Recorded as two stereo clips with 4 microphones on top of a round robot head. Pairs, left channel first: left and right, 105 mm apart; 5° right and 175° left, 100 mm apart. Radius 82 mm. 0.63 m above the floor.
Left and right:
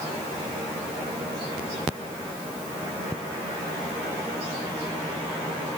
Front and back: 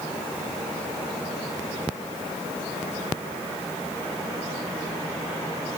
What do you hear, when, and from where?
Only background noise.